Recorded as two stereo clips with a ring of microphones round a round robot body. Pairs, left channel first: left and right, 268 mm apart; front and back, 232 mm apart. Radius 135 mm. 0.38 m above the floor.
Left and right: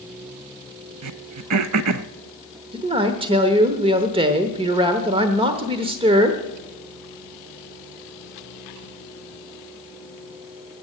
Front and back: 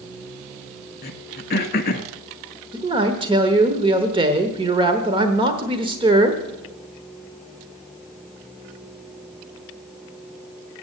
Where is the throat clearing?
60° right, 0.7 m.